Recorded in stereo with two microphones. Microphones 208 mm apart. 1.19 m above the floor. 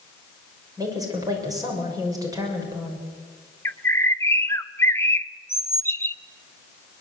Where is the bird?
10° left (ahead or behind), 0.7 m.